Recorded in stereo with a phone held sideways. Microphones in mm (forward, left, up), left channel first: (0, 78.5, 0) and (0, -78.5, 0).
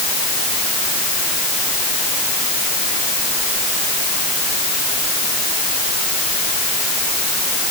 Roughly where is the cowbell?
No cowbell in this recording.